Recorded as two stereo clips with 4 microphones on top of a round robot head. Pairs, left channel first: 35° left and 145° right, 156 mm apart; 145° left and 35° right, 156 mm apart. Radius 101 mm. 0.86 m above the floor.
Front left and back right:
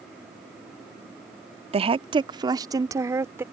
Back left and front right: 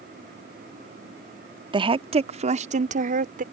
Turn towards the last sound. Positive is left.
turn(degrees=-70)